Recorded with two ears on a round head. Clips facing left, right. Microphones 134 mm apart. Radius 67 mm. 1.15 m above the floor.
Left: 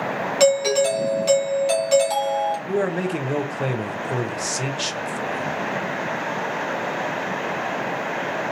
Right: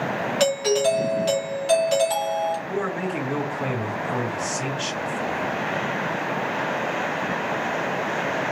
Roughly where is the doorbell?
Centre.